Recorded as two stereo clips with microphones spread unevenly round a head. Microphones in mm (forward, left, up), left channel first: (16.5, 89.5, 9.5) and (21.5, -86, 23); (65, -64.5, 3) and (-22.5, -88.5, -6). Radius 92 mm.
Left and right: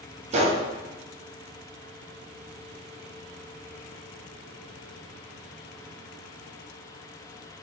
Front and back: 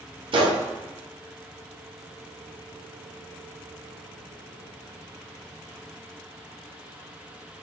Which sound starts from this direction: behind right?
A gunshot, at 0.3 s.